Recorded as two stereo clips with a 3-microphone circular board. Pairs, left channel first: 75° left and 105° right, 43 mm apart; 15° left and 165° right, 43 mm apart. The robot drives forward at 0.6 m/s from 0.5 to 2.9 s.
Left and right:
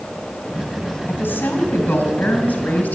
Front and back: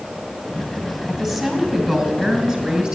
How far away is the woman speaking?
About 3 m.